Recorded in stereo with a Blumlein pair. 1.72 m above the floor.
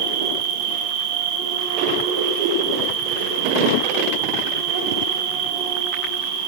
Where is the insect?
55° right, 2.5 m.